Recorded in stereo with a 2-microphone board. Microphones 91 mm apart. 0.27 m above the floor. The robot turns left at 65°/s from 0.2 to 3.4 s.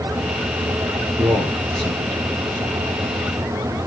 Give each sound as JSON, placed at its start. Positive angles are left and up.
{"t": 1.2, "sound": "a man speaking", "side_deg": -50, "distance_m": 4.5}